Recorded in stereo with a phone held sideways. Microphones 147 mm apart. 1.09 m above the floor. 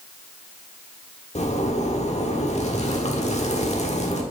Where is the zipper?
50° left (ahead or behind), 1.3 m.